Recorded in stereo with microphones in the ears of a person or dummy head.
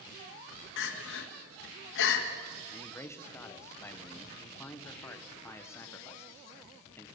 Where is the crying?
75° left (ahead or behind), 1.9 m.